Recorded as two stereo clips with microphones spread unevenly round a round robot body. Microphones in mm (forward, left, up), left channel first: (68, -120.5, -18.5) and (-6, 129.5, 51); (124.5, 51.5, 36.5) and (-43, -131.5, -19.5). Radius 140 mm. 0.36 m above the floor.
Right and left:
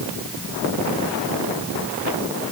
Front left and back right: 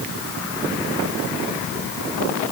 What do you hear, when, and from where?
Only background noise.